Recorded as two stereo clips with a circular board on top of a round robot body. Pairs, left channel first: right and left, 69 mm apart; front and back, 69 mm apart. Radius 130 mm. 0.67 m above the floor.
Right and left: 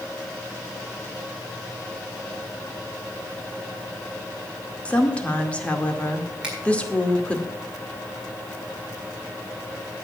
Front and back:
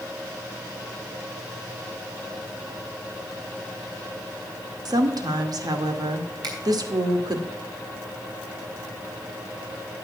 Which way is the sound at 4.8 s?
160° right.